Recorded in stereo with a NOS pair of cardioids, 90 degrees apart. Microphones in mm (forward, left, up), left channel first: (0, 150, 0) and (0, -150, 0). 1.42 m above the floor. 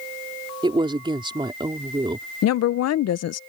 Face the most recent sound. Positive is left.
turn(degrees=60)